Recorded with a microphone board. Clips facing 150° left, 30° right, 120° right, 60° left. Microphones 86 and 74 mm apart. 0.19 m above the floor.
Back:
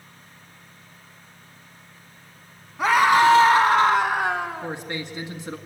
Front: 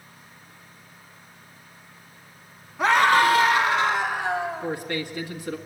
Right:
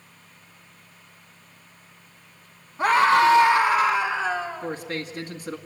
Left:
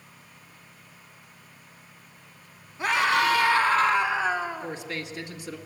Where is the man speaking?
150° right, 1.8 m.